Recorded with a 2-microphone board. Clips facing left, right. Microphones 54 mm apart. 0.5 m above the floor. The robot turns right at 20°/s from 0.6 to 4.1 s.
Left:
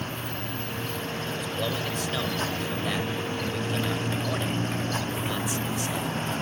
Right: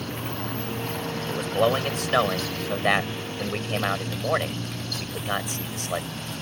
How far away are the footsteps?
No footsteps in this recording.